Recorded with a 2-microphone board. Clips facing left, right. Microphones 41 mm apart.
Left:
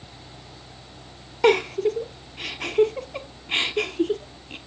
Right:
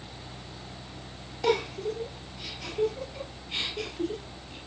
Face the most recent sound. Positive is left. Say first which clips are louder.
# left 8 dB
turn(degrees=55)  # may be behind; listen again after turning